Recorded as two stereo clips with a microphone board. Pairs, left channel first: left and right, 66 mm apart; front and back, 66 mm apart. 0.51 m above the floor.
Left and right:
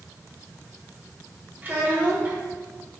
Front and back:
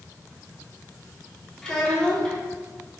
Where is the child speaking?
65° right, 0.8 m.